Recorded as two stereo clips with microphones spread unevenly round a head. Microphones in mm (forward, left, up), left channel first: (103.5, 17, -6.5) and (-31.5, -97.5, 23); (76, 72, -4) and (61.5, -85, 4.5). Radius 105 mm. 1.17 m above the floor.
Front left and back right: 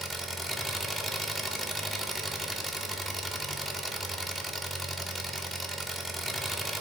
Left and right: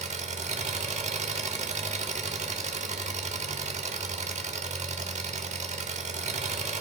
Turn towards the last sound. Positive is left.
turn(degrees=-50)